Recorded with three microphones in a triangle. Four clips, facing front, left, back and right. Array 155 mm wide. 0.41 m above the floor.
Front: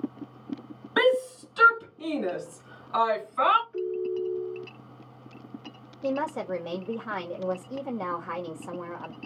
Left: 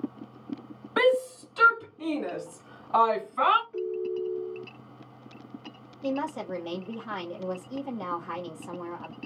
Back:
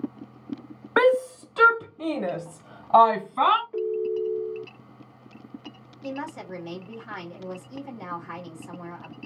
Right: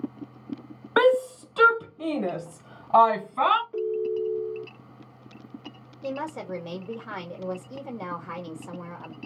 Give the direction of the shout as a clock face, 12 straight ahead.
4 o'clock.